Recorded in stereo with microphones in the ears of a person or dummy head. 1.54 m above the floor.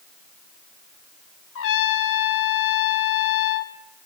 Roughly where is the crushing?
No crushing in this recording.